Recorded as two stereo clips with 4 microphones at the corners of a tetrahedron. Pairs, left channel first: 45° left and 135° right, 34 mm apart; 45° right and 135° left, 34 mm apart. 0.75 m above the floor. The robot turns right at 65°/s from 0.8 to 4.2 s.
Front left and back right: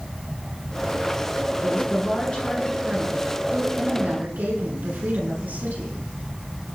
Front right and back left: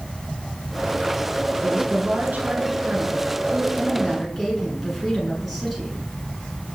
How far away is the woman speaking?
About 8 m.